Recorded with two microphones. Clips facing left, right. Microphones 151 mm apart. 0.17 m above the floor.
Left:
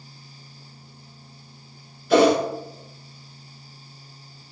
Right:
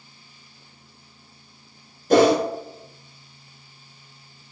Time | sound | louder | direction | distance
2.1 | a whoosh | right 1 dB | 45° right (ahead or behind) | 0.8 m